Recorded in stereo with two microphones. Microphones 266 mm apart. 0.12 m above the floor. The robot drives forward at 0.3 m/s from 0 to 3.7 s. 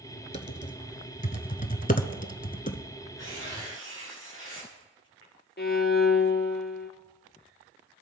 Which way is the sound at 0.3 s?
25° left (ahead or behind).